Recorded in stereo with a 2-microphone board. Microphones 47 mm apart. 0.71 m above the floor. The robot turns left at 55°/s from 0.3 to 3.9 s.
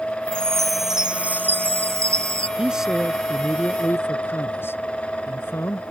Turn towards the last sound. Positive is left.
turn(degrees=130)